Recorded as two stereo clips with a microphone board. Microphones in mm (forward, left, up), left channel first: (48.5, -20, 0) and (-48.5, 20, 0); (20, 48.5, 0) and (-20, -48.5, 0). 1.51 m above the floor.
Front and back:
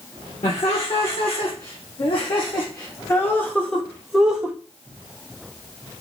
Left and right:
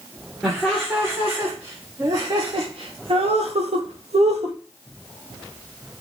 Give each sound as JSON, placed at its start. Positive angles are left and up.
{"t": 0.4, "sound": "laughter", "azimuth_deg": -30, "distance_m": 1.6}